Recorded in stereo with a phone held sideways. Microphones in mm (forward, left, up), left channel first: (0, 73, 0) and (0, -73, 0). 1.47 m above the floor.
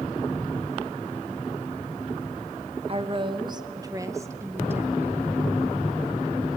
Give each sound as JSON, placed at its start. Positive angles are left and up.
{"t": 2.9, "sound": "a woman speaking", "side_deg": -40, "distance_m": 1.1}